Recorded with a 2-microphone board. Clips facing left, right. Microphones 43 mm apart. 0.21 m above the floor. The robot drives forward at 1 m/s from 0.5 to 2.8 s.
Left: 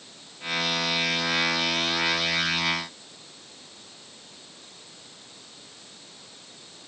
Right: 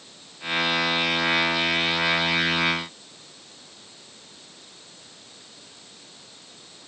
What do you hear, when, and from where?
Only background noise.